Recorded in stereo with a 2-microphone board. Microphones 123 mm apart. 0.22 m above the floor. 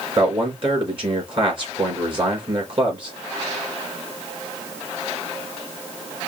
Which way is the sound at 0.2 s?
45° right (ahead or behind).